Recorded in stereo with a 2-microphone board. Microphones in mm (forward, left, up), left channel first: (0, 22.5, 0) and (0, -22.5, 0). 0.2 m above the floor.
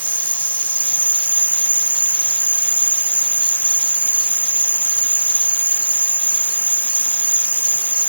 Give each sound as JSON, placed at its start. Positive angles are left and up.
{"t": 0.0, "sound": "an insect", "side_deg": 35}